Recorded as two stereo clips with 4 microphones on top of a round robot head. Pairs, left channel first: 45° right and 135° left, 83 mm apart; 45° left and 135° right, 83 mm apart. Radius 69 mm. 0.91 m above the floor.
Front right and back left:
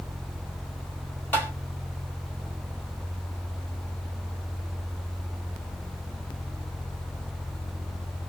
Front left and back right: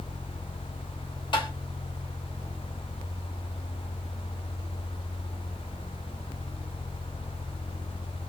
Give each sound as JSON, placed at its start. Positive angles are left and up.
{"t": 1.3, "sound": "tapping", "azimuth_deg": 25, "distance_m": 2.5}